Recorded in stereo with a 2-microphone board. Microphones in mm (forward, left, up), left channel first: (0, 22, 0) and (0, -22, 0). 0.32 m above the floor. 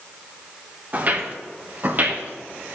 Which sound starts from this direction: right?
Footsteps, at 0.9 s.